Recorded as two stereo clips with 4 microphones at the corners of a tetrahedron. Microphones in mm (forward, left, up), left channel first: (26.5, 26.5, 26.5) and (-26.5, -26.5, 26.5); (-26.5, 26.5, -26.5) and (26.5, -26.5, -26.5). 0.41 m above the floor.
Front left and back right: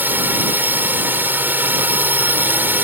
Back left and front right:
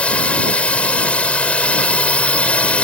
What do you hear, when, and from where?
0.0 s a drone: 170° right